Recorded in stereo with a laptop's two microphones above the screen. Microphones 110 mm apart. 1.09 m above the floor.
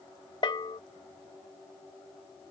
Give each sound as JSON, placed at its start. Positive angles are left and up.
{"t": 0.4, "sound": "a bell", "side_deg": 45}